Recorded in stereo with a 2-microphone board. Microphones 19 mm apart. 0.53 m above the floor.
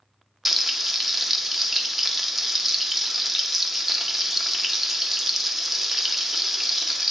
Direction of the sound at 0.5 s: 5° right (ahead or behind).